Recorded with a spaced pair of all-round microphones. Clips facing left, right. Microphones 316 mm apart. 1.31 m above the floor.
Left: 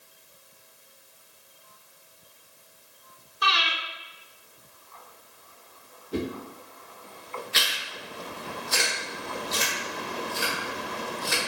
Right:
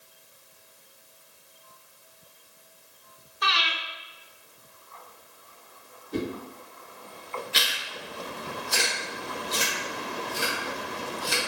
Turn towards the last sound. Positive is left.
turn(degrees=-40)  # may be behind; listen again after turning